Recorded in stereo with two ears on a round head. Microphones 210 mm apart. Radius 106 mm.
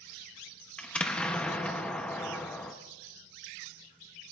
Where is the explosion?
5° left (ahead or behind), 0.6 m.